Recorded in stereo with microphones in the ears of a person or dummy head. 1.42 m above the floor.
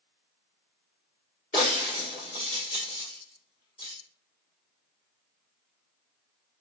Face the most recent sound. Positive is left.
turn(degrees=20)  # may be behind; listen again after turning